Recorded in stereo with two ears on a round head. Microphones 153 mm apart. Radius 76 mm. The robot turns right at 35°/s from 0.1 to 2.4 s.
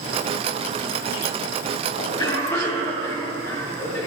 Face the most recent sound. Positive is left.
turn(degrees=15)  # may be behind; listen again after turning